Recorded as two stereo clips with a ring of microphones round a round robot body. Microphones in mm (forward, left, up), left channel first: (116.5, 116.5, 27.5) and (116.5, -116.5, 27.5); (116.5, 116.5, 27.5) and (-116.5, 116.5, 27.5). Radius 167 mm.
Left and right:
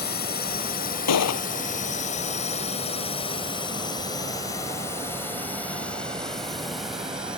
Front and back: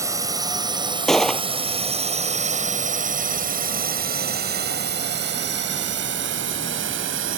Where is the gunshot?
90° left.